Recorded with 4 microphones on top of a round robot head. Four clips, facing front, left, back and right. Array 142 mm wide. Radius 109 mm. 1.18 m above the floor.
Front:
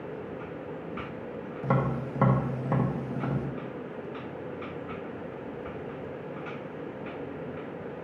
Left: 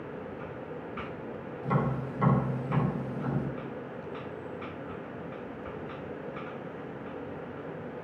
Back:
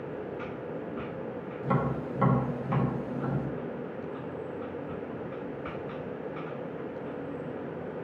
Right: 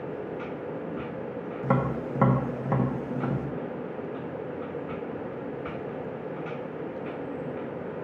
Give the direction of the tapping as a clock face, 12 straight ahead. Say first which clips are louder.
Right 3 dB, front 1 dB; 2 o'clock.